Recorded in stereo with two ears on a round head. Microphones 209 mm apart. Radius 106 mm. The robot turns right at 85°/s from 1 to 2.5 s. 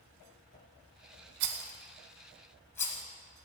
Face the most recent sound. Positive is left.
turn(degrees=10)  # may be behind; listen again after turning